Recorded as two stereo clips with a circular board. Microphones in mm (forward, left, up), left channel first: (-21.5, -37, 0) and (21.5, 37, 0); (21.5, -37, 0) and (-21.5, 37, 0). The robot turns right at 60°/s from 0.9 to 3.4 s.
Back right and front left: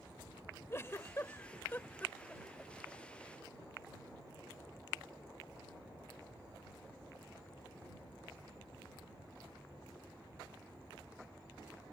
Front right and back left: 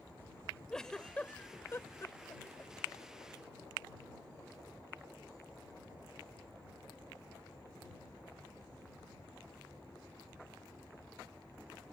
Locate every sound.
0.7 s a giggle: 135° right; by 2.7 s 25° right